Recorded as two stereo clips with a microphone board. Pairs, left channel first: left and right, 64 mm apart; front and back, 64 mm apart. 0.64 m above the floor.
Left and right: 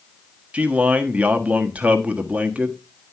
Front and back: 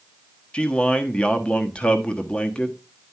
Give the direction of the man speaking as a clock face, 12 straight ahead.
2 o'clock.